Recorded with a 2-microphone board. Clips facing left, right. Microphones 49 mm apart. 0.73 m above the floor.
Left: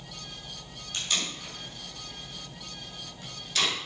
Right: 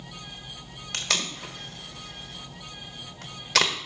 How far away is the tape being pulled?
About 1.5 m.